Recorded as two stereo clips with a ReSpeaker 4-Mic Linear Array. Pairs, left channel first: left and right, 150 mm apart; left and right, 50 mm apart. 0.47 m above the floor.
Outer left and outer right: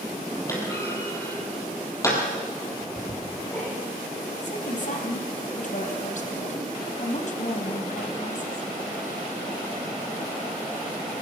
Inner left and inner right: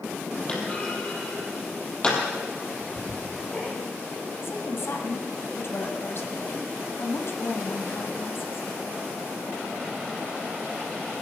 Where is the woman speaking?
60° left (ahead or behind), 2.5 m.